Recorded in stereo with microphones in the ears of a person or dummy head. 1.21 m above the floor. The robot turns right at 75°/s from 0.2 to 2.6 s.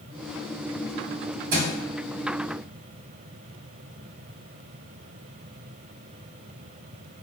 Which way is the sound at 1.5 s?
60° right (ahead or behind).